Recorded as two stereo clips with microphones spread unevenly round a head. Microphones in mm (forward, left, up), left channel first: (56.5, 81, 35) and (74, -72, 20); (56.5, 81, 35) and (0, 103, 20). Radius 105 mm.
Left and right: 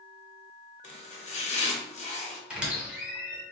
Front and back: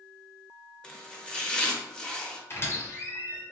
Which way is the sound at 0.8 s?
55° left.